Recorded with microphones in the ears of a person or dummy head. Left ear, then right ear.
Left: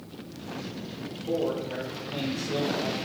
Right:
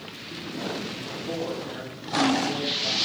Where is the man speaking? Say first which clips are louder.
Left 4 dB; 10° right (ahead or behind), 0.6 m.